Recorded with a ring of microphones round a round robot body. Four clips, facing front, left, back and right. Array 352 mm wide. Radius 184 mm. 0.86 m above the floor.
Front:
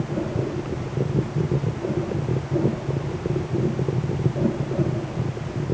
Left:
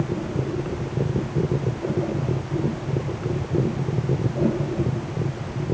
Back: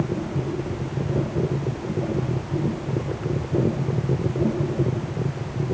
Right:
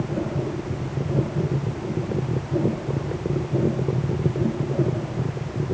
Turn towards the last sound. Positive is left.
No sound to turn to.